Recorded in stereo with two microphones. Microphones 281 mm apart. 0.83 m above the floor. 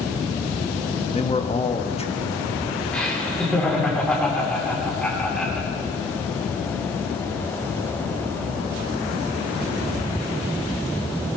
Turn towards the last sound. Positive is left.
turn(degrees=5)  # may be behind; listen again after turning